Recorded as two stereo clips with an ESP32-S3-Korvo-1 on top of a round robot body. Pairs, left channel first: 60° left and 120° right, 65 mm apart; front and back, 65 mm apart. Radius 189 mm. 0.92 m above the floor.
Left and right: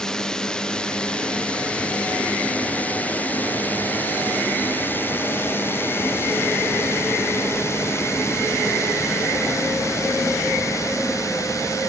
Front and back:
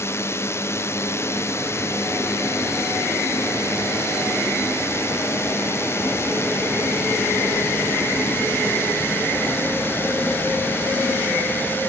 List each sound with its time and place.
0.0 s a drone: 15° right; by 11.9 s 50° left